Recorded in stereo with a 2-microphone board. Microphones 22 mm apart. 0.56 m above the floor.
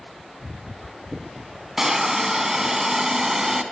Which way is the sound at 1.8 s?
20° right (ahead or behind).